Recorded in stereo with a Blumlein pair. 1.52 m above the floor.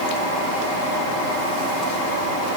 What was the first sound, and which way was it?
Only background noise.